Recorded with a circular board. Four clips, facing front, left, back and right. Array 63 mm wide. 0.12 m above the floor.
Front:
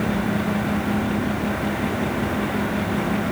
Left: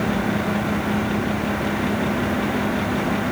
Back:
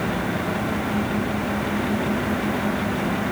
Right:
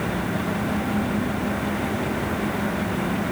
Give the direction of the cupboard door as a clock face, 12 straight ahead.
I don't hear a cupboard door.